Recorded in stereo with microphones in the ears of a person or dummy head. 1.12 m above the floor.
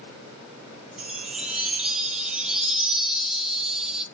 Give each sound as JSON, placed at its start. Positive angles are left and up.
{"t": 1.0, "sound": "a chime", "side_deg": 0, "distance_m": 1.1}